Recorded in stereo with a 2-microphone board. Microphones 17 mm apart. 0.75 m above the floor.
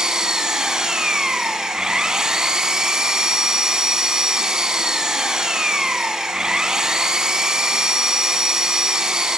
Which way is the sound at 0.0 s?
40° right (ahead or behind).